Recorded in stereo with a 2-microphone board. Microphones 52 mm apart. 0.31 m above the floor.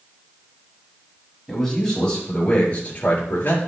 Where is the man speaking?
10° left (ahead or behind), 5.5 m; by 3.6 s 40° left (ahead or behind), 4.5 m.